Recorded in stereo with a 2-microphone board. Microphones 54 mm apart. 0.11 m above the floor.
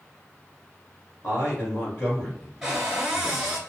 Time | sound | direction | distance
1.2 | a man speaking | 35° left (ahead or behind) | 1.9 m
2.6 | a cupboard door | 5° right (ahead or behind) | 0.9 m